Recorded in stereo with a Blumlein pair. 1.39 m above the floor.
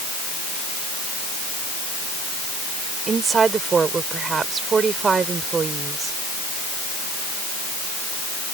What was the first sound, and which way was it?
A woman speaking, 20° right.